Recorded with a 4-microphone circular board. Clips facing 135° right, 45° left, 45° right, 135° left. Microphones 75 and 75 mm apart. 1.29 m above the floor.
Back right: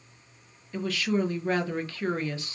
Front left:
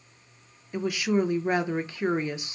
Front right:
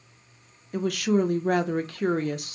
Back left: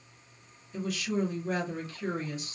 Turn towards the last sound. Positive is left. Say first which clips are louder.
# front left 2 dB, front right 8 dB
turn(degrees=-25)